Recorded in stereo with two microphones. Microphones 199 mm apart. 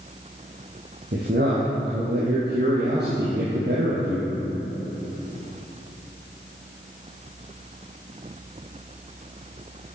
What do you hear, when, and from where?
1.1 s a man speaking: 55° right (ahead or behind), 2.5 m